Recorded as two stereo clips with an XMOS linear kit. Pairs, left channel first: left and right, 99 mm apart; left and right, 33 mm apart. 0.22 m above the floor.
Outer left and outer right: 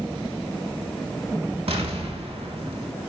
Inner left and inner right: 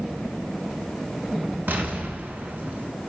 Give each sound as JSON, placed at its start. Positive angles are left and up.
{"t": 1.7, "sound": "an explosion", "side_deg": -75, "distance_m": 0.5}